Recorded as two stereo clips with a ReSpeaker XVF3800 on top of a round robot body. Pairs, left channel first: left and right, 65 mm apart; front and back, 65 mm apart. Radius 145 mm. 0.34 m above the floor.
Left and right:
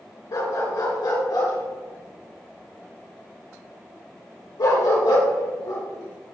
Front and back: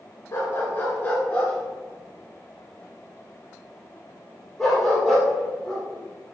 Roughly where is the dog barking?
Ahead left.